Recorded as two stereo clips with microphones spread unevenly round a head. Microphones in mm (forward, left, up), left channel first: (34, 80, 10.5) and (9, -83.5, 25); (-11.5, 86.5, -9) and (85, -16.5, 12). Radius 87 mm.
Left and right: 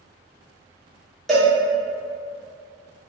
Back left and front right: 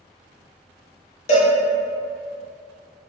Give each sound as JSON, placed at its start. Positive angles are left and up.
{"t": 1.3, "sound": "a cowbell", "azimuth_deg": 165, "distance_m": 0.5}